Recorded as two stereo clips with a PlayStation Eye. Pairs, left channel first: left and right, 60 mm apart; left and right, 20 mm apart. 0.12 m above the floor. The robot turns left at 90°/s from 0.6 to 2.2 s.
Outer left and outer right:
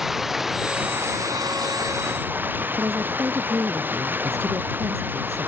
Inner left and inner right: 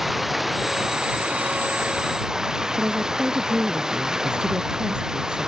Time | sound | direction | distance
0.0 | running water | 5° right | ?
2.8 | a woman speaking | 50° right (ahead or behind) | ?